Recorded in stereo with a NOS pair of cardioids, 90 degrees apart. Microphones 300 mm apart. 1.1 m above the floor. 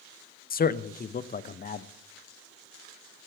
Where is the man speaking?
30° left, 0.6 m.